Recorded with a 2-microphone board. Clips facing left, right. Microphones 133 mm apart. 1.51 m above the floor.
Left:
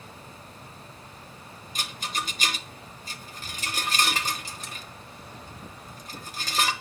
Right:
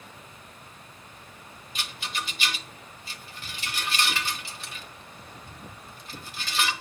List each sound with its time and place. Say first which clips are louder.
1.8 s a rattle: left 2 dB; 40° left (ahead or behind), 1.1 m